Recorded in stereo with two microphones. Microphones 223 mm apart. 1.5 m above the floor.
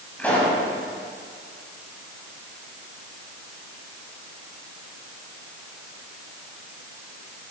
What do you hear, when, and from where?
0.2 s a pop: 5° left (ahead or behind), 6 m